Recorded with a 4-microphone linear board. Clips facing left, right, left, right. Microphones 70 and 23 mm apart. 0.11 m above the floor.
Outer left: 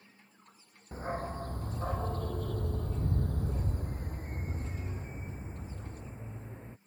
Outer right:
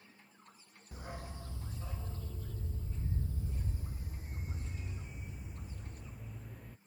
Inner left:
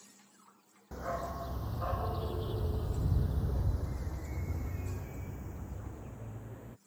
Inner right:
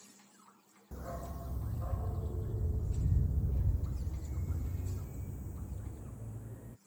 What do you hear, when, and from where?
0.9 s a dog barking: 40° left (ahead or behind); by 6.8 s 30° left (ahead or behind)